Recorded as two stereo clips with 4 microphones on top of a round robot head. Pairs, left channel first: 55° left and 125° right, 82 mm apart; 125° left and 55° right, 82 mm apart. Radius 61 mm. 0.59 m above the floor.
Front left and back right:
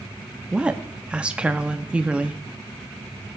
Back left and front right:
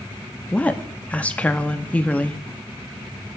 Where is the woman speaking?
175° left, 0.6 m.